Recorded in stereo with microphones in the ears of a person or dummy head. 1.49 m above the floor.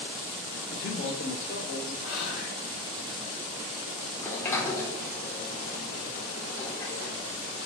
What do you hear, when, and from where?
0.7 s a man speaking: 45° left (ahead or behind), 0.8 m; by 1.9 s 90° left, 1.8 m
2.0 s whispering: 75° left (ahead or behind), 1.3 m
4.2 s a sliding door: 15° left (ahead or behind), 0.8 m